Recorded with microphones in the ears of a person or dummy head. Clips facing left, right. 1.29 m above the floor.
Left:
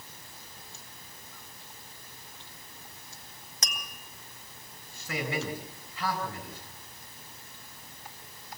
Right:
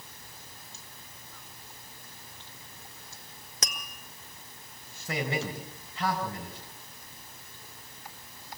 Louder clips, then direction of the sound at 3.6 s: Right 2 dB; 55° right (ahead or behind).